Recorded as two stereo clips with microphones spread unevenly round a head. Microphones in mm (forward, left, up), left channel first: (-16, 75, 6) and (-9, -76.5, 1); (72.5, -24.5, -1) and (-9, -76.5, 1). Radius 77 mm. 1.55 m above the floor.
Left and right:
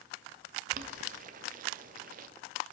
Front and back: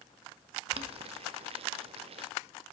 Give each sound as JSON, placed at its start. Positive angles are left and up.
{"t": 0.7, "sound": "boiling", "azimuth_deg": -125, "distance_m": 0.7}